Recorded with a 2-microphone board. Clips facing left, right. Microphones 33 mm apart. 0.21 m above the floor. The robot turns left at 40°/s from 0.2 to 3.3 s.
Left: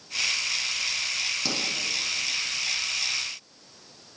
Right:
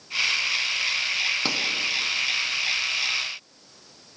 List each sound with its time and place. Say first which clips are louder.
1.4 s a pop: right 4 dB; 45° right (ahead or behind), 0.9 m